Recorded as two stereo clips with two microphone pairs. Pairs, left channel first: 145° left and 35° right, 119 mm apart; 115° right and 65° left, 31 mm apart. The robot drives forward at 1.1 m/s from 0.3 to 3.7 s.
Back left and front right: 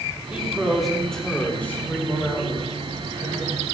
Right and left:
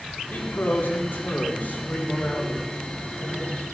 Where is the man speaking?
115° right, 2.5 m; by 3.6 s 155° right, 5.5 m.